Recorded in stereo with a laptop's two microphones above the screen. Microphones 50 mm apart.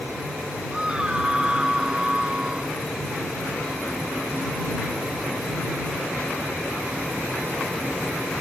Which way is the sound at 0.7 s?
15° right (ahead or behind).